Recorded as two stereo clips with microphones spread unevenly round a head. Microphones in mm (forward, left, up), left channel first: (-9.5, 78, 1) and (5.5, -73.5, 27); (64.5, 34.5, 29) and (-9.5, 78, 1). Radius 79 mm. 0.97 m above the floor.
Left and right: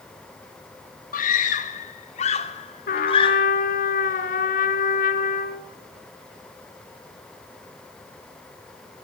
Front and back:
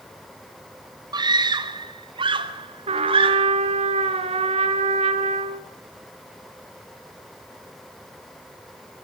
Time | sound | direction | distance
1.1 | a scream | 125° left | 3 m
2.9 | a trumpet | 140° left | 2.5 m